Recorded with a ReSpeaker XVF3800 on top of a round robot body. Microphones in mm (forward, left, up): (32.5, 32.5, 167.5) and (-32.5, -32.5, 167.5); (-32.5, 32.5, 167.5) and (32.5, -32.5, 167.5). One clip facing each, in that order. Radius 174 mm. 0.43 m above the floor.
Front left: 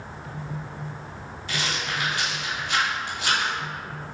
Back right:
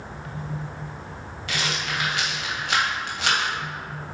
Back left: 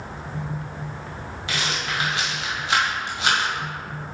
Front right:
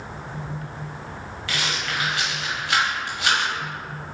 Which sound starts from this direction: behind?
A rattle, at 1.5 s.